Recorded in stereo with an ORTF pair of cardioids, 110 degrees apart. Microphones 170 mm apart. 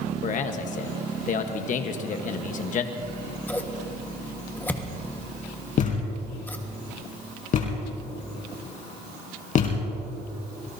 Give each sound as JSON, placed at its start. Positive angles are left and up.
{"t": 0.2, "sound": "a man speaking", "azimuth_deg": 50, "distance_m": 1.2}
{"t": 3.0, "sound": "scissors", "azimuth_deg": 10, "distance_m": 1.5}
{"t": 5.8, "sound": "a thud", "azimuth_deg": 50, "distance_m": 3.5}